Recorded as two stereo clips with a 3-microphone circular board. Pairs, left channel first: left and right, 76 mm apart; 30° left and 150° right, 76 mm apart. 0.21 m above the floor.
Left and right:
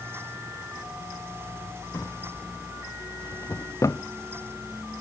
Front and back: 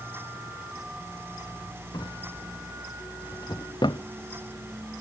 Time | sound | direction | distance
1.9 | a drawer | 45° left | ?